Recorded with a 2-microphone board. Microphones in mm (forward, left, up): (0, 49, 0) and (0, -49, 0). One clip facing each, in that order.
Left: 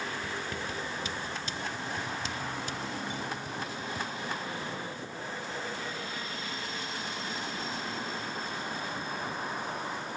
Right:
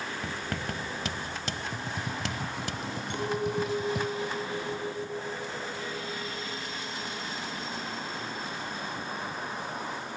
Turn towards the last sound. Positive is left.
turn(degrees=-70)  # may be behind; listen again after turning